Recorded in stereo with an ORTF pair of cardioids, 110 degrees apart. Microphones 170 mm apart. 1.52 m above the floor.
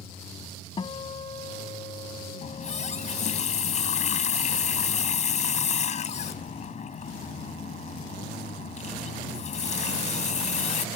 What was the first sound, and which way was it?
A guitar, 35° left.